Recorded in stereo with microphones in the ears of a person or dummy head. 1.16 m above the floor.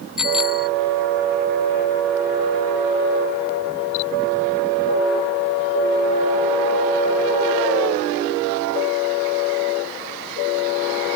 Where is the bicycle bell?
5° right (ahead or behind).